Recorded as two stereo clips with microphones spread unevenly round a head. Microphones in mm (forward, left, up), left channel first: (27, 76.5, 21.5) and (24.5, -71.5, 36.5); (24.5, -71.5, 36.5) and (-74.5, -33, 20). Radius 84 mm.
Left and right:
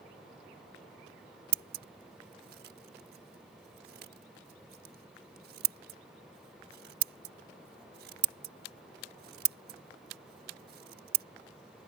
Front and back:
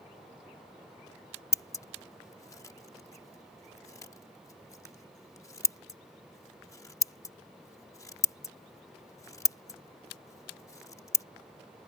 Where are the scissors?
80° right.